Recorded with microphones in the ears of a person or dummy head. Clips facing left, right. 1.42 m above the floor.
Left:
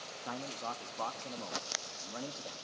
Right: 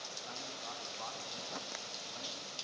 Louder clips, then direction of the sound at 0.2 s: Left 9 dB; 80° left.